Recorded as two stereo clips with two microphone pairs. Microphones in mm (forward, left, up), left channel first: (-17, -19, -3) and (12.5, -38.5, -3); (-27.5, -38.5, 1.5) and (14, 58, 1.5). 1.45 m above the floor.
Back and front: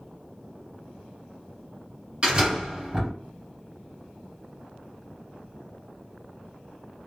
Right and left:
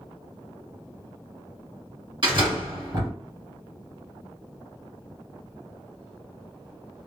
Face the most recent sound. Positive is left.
turn(degrees=30)